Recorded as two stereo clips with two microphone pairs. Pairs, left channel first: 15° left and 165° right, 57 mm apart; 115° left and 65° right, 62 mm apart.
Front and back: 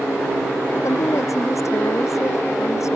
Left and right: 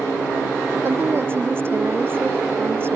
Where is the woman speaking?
15° right.